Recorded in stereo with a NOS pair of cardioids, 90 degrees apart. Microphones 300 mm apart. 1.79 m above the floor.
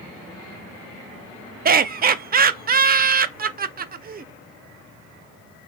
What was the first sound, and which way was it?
Laughter, 30° right.